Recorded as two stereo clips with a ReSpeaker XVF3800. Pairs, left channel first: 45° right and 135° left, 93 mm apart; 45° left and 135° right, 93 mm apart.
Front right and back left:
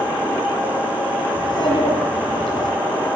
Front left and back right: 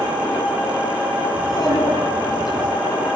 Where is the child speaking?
5° right, 8.5 m.